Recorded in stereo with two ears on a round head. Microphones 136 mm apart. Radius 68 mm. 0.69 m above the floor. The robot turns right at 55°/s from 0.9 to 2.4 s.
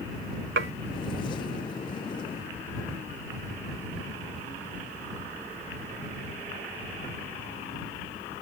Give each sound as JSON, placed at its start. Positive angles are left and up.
{"t": 0.6, "sound": "dishes clattering", "side_deg": -80}